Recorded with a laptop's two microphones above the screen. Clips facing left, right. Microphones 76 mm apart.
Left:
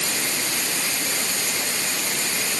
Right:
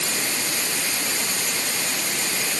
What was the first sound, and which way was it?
Only background noise.